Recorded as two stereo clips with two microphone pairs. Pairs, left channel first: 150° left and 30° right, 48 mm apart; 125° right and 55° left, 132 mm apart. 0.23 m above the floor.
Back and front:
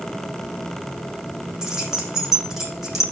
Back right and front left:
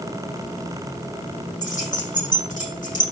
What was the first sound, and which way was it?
Keys jangling, 110° right.